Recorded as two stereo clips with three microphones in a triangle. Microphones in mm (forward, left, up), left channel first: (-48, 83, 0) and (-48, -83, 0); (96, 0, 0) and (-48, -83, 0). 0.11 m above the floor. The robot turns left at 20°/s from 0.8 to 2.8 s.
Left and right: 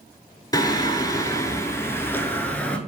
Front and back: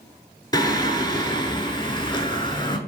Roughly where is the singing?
Ahead left.